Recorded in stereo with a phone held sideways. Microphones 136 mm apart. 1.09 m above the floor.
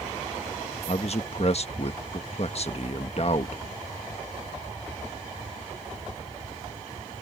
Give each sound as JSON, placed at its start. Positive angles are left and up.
{"t": 0.9, "sound": "a man speaking", "side_deg": 50}